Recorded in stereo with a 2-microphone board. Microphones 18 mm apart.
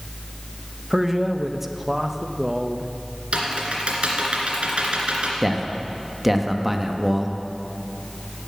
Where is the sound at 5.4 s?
10° right (ahead or behind), 1.0 m.